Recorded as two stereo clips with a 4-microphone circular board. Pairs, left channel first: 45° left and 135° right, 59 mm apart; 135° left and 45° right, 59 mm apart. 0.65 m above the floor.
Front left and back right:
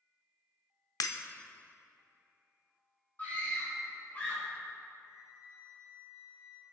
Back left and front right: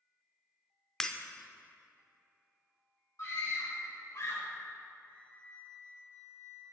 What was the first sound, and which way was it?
Breaking glass, 55° left.